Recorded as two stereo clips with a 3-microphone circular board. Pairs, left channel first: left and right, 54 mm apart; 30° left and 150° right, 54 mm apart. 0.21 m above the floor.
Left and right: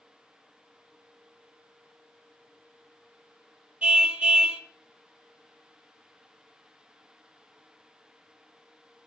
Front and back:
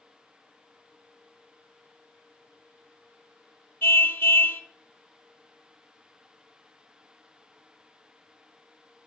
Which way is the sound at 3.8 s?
15° right.